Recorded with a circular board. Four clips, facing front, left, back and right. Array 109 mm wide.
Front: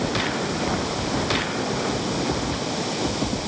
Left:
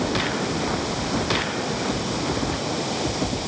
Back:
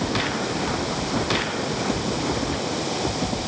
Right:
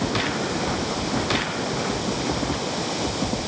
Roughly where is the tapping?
No tapping in this recording.